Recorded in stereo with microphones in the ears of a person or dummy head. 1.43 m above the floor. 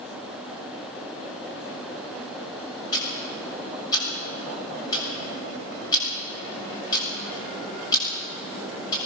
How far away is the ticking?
About 7.5 m.